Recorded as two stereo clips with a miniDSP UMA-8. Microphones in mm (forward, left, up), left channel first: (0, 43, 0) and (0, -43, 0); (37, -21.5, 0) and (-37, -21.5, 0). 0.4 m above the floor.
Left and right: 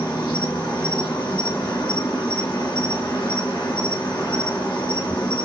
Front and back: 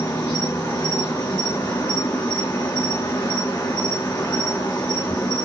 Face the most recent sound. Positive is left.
turn(degrees=55)